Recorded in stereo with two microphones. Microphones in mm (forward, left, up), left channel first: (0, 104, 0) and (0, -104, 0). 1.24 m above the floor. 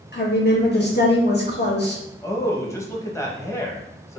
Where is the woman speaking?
55° left (ahead or behind), 1.6 m.